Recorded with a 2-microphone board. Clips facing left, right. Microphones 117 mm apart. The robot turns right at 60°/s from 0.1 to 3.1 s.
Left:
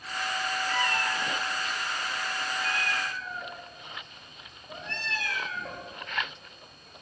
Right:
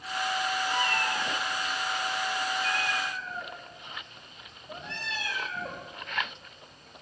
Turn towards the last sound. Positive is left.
turn(degrees=-15)  # may be behind; listen again after turning